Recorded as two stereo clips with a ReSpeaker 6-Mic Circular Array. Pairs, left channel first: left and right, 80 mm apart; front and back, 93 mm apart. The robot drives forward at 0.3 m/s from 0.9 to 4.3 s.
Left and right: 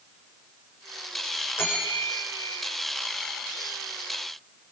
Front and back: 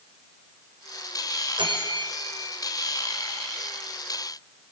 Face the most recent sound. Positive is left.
turn(degrees=155)